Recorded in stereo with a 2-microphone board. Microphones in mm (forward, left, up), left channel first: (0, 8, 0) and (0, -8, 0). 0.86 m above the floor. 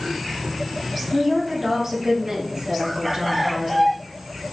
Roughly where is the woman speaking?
Centre.